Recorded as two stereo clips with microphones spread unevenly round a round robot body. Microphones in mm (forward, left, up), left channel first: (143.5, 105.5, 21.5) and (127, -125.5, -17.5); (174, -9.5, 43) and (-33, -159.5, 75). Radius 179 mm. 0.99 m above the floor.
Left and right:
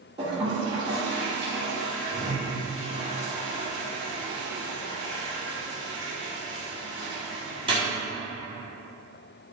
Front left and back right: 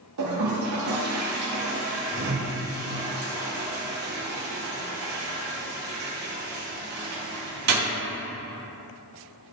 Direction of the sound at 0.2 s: 170° right.